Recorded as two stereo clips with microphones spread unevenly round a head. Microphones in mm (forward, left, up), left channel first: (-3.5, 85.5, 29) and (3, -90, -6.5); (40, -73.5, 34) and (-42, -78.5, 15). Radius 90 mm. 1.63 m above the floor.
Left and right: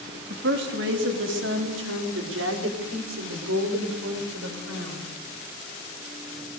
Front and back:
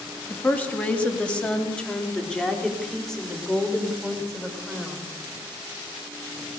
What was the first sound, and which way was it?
A woman speaking, 60° right.